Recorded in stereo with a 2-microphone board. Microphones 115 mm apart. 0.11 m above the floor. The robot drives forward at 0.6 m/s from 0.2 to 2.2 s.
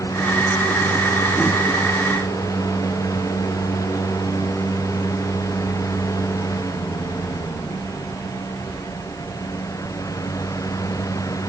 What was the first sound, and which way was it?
Only background noise.